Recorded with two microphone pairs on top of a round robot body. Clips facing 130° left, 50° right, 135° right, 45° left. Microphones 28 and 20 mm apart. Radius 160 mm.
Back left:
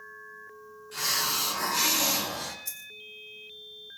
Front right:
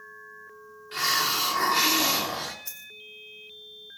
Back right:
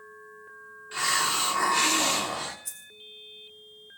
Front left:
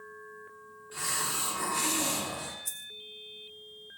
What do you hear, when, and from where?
0.9 s a hiss: 95° right, 3 m
2.6 s a dropped coin: 50° right, 0.8 m